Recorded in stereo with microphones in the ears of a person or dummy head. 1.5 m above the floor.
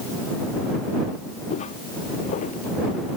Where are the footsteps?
40° left (ahead or behind); by 3.2 s 50° left (ahead or behind).